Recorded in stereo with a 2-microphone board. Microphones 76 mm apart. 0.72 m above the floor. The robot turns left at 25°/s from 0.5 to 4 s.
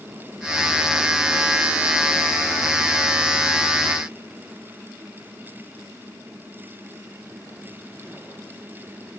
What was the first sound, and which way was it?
Only background noise.